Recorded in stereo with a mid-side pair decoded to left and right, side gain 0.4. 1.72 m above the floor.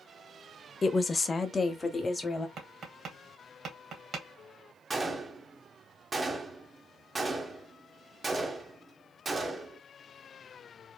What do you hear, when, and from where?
0.8 s a woman speaking: 40° left, 0.5 m; by 2.5 s 30° left, 1.4 m
2.6 s tapping: 65° right, 1.5 m
4.9 s a gunshot: 30° right, 0.9 m